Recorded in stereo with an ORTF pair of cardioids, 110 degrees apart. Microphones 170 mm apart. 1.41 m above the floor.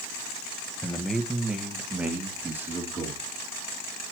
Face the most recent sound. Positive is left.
turn(degrees=-15)